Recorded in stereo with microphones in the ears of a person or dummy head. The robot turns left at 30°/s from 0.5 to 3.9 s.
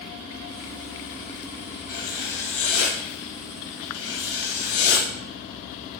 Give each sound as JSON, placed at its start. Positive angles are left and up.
{"t": 1.9, "sound": "writing", "azimuth_deg": 135, "distance_m": 1.6}